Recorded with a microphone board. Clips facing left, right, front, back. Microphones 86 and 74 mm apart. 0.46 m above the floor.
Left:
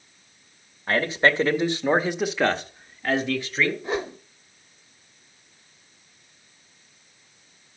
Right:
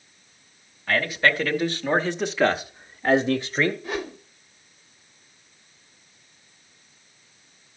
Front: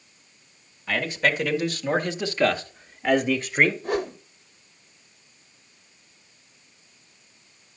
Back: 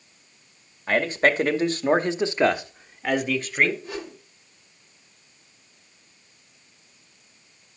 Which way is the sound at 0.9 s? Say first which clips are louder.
Left 1 dB, back 4 dB; 140° left.